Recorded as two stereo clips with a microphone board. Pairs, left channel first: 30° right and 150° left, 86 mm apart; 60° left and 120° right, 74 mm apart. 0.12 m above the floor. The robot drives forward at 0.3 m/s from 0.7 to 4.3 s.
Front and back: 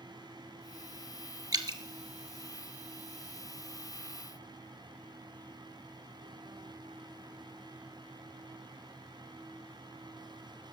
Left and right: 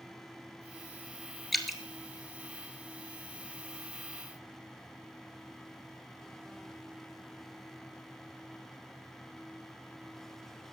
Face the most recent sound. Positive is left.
turn(degrees=160)